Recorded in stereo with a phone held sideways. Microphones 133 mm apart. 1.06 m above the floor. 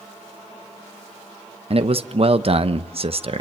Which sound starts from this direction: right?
A man speaking, at 1.7 s.